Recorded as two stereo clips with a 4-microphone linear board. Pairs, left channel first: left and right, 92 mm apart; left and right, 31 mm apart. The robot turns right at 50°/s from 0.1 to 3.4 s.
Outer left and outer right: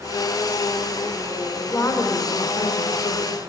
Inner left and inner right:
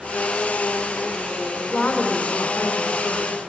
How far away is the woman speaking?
About 1.6 m.